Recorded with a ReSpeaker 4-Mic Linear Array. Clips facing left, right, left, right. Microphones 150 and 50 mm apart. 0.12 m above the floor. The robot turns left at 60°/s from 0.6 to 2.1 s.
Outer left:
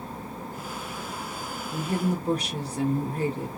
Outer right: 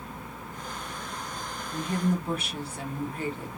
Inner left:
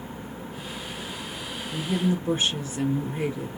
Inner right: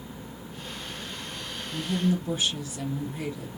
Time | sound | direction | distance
1.7 | a woman speaking | 40° left (ahead or behind) | 1.8 m